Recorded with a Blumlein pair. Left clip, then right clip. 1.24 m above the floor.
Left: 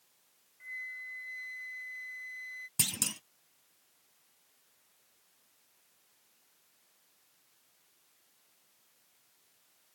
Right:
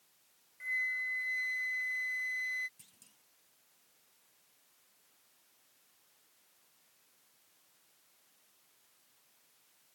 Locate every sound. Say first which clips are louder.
0.6 s a flute: right 7 dB; 20° right
2.8 s a clunk: left 30 dB; 45° left